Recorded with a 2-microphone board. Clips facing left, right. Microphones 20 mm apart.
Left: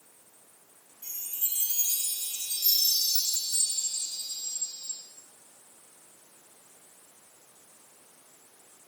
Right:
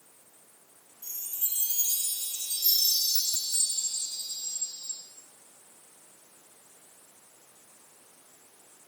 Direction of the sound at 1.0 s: 55° left (ahead or behind).